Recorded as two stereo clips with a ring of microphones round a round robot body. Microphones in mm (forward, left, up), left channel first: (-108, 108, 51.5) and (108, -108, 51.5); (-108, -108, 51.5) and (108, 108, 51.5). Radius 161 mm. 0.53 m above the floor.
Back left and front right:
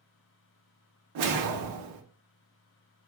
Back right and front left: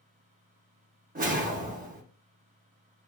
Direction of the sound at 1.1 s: 20° right.